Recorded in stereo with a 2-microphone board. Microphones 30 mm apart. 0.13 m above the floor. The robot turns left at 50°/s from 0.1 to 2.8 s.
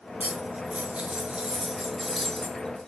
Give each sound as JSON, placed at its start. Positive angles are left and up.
{"t": 0.2, "sound": "cutlery clinking", "azimuth_deg": -80, "distance_m": 1.0}